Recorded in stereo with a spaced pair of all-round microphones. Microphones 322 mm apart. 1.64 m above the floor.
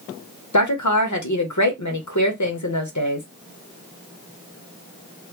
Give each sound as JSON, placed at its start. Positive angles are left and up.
{"t": 0.5, "sound": "a woman speaking", "side_deg": 60, "distance_m": 0.8}